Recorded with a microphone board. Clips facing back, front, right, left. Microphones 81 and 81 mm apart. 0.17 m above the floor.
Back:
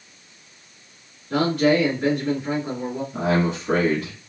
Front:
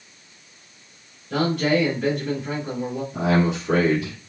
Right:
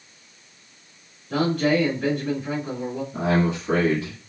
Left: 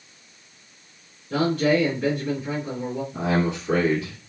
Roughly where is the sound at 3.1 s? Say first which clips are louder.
Front 1 dB, right 2 dB; behind right.